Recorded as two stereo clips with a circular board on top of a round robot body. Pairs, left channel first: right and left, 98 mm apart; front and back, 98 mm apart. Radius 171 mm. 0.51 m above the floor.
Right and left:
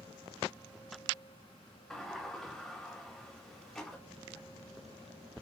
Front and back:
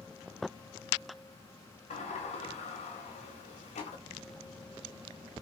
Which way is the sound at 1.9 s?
5° right.